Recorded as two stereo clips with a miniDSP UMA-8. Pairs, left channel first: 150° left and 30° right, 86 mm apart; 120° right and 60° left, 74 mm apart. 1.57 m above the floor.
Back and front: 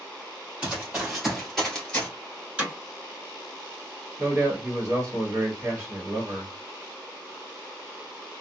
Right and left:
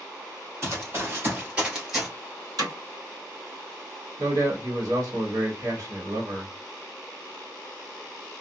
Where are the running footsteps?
40° left, 2.0 m; by 2.1 s 135° left, 1.6 m.